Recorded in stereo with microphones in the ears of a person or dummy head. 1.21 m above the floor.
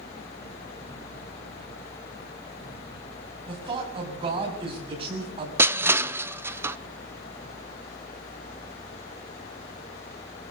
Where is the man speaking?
30° right (ahead or behind), 7 m.